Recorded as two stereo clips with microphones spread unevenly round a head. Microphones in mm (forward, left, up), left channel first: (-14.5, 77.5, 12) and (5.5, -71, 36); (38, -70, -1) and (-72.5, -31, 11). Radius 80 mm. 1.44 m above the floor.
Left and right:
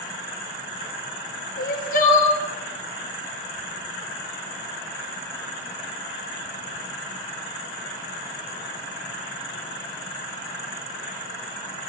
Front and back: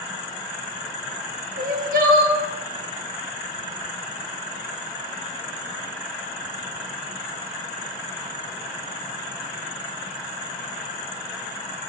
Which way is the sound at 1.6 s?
130° left.